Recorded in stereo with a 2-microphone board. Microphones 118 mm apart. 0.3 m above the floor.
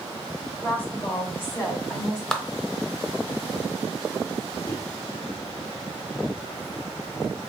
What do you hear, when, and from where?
0.6 s a woman speaking: 10° left (ahead or behind), 1.4 m; by 2.2 s 25° left (ahead or behind), 1.4 m
2.3 s a clap: 5° left (ahead or behind), 0.7 m
4.7 s a microwave: 15° left (ahead or behind), 0.8 m